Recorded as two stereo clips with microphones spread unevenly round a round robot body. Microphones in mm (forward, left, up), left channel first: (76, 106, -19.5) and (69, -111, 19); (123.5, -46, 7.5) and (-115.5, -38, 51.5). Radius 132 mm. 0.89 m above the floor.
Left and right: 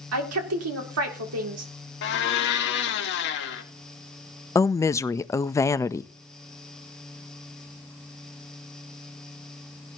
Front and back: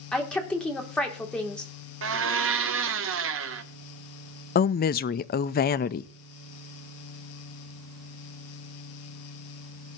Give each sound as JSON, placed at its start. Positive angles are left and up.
{"t": 0.1, "sound": "a woman speaking", "azimuth_deg": -85, "distance_m": 2.5}
{"t": 2.0, "sound": "a blender", "azimuth_deg": 135, "distance_m": 0.9}
{"t": 4.5, "sound": "a woman speaking", "azimuth_deg": 25, "distance_m": 0.5}